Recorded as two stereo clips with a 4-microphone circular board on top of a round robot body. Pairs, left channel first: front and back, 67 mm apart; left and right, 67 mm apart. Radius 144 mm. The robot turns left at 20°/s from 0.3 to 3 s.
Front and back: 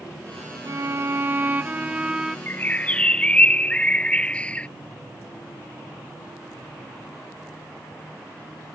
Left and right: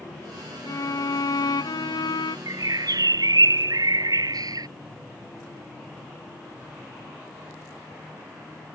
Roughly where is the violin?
Behind left.